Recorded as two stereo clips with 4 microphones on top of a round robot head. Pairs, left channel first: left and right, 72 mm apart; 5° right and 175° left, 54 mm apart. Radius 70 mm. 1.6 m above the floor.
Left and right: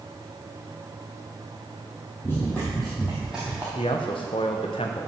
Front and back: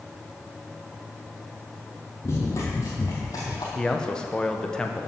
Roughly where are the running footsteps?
Ahead.